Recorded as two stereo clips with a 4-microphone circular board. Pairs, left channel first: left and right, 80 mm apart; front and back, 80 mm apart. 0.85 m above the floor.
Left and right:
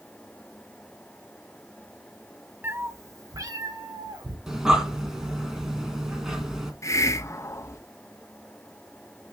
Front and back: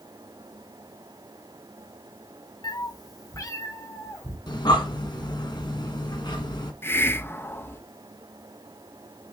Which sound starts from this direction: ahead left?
A hiss, at 6.8 s.